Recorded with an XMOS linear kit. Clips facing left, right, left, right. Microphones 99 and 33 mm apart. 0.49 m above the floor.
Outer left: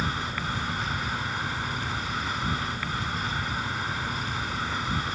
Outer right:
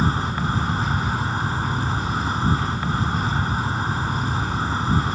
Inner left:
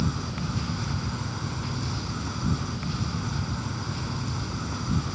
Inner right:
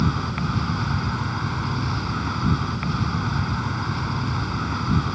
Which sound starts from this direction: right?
An insect, at 0.0 s.